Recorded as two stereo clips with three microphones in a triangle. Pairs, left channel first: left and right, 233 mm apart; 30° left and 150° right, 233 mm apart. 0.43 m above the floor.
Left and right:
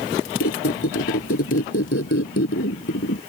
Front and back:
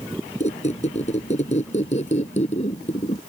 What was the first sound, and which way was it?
A squeak, 90° left.